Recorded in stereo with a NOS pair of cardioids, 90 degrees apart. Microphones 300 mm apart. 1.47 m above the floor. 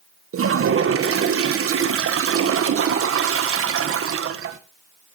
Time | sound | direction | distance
0.3 | a toilet flushing | 45° right | 1.5 m